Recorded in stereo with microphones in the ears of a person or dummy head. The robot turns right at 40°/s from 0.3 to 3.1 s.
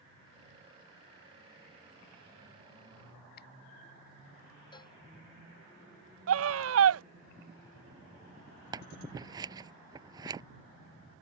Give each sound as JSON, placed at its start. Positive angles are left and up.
{"t": 3.4, "sound": "a finger snap", "side_deg": 50}
{"t": 4.7, "sound": "a cowbell", "side_deg": 25}
{"t": 6.3, "sound": "a scream", "side_deg": -80}
{"t": 8.7, "sound": "scissors", "side_deg": -20}